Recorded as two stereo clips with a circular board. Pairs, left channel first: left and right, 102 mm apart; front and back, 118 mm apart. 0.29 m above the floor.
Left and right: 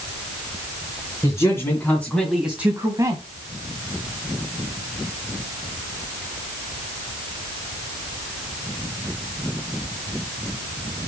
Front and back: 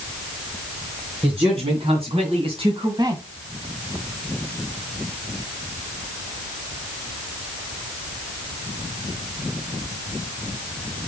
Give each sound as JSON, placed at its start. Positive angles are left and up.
{"t": 1.2, "sound": "a man speaking", "azimuth_deg": 145, "distance_m": 3.0}